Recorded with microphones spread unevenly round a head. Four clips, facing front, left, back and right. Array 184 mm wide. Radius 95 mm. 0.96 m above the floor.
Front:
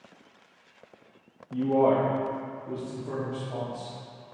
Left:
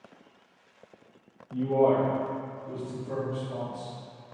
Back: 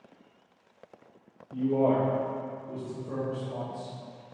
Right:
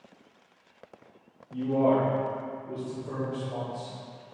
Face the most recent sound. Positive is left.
turn(degrees=-15)